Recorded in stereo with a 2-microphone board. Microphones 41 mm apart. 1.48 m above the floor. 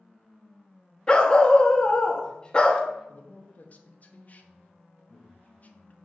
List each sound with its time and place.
1.1 s a dog barking: 20° left (ahead or behind), 0.9 m
3.1 s a man speaking: 40° left (ahead or behind), 0.9 m